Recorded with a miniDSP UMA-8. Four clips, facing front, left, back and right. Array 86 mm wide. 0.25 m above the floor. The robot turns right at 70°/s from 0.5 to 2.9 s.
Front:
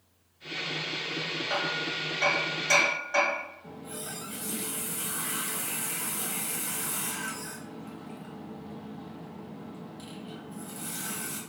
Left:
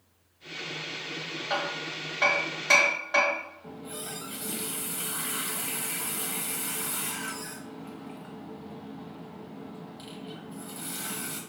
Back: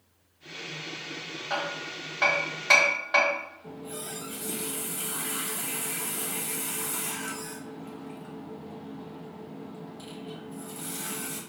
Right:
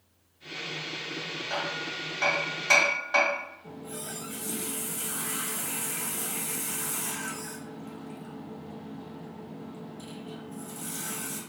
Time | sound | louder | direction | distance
1.5 | hammering | left 2 dB, even | 85° left | 1.3 m
3.6 | a running tap | even, back 2 dB | 85° left | 0.7 m